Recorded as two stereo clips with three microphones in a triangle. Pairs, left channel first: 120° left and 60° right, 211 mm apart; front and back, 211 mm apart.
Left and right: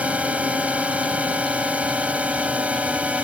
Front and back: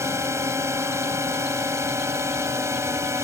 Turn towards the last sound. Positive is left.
turn(degrees=-130)